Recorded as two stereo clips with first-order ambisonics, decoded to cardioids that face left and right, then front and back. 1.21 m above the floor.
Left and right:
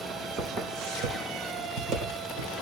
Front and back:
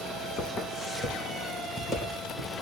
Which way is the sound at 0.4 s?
65° right.